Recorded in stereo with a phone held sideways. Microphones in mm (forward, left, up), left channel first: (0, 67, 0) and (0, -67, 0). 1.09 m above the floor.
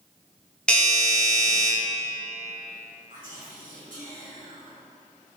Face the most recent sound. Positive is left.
turn(degrees=-75)  # may be behind; listen again after turning